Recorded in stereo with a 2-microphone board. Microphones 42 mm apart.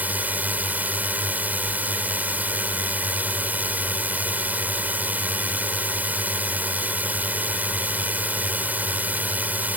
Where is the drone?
35° right (ahead or behind).